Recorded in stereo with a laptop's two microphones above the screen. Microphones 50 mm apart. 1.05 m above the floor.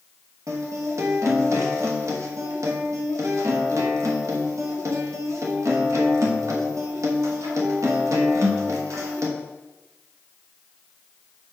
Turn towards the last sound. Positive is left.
turn(degrees=-85)